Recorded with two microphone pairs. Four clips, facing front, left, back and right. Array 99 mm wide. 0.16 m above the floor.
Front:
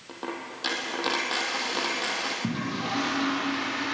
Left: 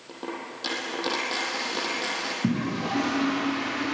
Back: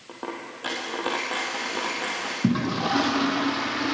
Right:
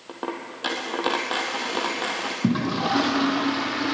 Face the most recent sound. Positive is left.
turn(degrees=-125)